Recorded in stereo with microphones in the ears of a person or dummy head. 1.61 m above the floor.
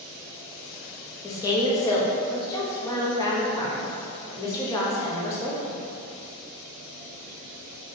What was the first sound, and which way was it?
A woman speaking, 20° left (ahead or behind).